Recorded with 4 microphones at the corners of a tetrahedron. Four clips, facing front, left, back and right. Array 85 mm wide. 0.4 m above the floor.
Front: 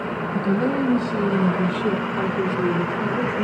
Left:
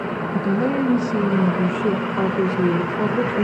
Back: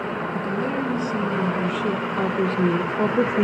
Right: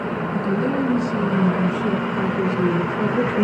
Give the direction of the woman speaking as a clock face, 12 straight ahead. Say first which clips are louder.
Left 2 dB, front 6 dB; 10 o'clock.